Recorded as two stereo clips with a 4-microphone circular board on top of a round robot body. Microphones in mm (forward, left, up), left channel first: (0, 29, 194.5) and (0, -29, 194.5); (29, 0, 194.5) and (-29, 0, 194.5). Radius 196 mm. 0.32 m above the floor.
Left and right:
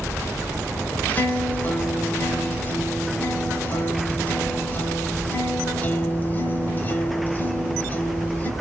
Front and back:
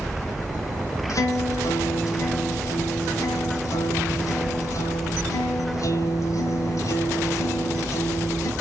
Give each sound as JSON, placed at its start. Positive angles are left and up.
{"t": 1.1, "sound": "a guitar", "azimuth_deg": 30, "distance_m": 1.1}